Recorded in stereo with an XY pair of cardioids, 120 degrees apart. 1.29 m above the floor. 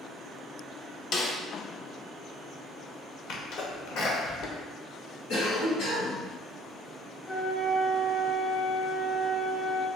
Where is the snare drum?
50° left, 0.6 m.